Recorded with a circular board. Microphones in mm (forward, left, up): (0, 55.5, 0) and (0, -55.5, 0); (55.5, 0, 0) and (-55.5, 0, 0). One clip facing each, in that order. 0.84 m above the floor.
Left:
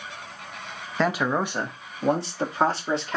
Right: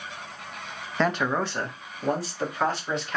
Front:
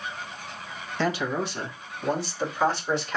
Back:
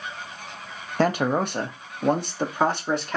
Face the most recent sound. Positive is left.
turn(degrees=145)